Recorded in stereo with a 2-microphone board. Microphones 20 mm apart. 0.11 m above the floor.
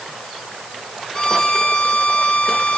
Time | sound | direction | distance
1.1 | a violin | 35° left (ahead or behind) | 1.2 m